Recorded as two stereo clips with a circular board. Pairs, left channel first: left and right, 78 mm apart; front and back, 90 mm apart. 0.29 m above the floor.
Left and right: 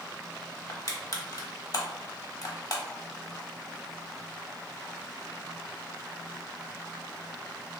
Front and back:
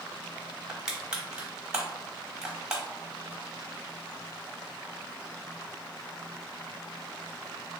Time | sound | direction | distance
0.7 | crushing | 105° left | 0.8 m